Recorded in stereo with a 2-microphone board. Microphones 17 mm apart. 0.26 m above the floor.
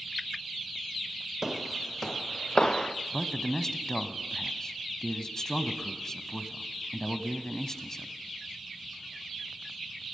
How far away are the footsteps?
About 0.6 m.